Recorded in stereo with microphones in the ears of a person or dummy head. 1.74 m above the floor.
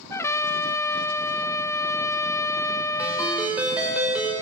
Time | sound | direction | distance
0.1 | a trumpet | 15° left (ahead or behind) | 0.5 m
3.0 | a ringtone | 10° right (ahead or behind) | 4.5 m